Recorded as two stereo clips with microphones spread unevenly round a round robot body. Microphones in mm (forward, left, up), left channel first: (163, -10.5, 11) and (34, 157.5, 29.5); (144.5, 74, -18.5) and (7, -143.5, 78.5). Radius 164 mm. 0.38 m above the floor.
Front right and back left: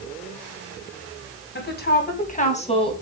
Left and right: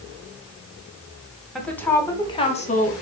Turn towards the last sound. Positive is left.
turn(degrees=10)